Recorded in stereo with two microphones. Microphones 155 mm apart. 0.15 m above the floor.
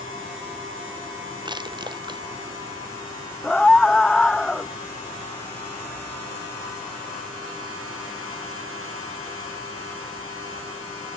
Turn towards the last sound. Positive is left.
turn(degrees=5)  # may be behind; listen again after turning